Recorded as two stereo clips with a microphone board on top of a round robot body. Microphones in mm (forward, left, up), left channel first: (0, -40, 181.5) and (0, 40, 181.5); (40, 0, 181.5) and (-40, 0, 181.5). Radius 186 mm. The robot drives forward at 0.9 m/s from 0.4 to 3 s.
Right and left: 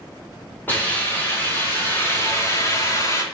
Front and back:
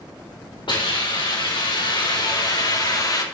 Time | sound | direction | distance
0.7 | a hiss | 20° right | 4 m